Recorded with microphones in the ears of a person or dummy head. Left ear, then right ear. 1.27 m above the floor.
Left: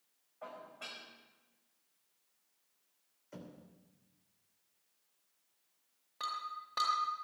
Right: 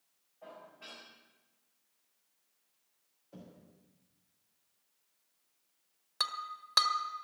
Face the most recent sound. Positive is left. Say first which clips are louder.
# right 4 dB
turn(degrees=-45)  # may be behind; listen again after turning